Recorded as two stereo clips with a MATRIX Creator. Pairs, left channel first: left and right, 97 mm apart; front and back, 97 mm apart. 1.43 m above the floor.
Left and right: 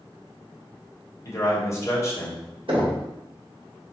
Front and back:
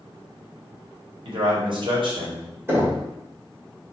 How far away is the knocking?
About 1.4 m.